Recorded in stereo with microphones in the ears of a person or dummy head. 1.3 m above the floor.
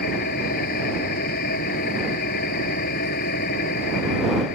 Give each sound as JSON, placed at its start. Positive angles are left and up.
{"t": 0.0, "sound": "an engine running", "side_deg": 50}